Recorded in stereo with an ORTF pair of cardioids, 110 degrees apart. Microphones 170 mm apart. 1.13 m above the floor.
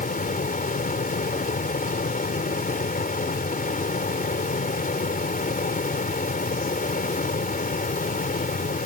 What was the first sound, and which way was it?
A fan, 55° left.